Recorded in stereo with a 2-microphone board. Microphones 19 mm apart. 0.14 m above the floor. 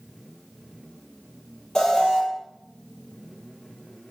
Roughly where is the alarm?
Left.